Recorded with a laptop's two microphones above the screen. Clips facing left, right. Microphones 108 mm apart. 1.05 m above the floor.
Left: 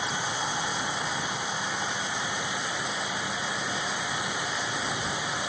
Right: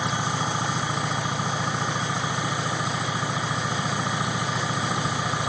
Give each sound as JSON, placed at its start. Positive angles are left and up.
{"t": 0.0, "sound": "an engine running", "side_deg": -65}